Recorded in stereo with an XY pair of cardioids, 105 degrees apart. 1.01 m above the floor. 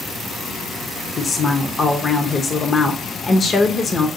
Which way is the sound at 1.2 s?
45° left.